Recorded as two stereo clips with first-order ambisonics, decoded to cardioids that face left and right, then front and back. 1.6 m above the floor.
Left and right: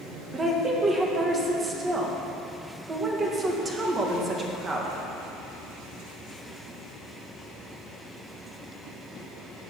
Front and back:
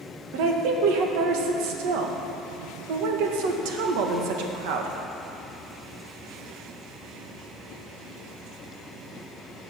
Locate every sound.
0.3 s a woman speaking: 165° right, 1.5 m